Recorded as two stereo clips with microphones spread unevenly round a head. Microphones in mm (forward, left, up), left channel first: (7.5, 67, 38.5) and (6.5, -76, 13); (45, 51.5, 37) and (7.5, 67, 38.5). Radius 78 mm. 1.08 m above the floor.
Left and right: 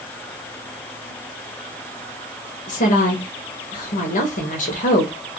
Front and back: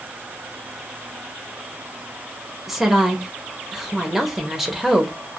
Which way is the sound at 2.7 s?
75° left.